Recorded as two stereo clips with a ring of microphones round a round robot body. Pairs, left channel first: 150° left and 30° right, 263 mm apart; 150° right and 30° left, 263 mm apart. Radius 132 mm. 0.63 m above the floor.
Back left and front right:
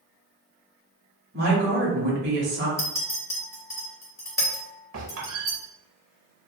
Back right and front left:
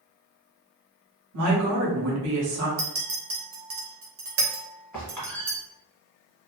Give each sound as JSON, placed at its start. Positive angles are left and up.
{"t": 1.3, "sound": "a woman speaking", "azimuth_deg": 15, "distance_m": 1.1}
{"t": 2.8, "sound": "a clink", "azimuth_deg": 75, "distance_m": 0.8}
{"t": 4.9, "sound": "a squeak", "azimuth_deg": -65, "distance_m": 1.0}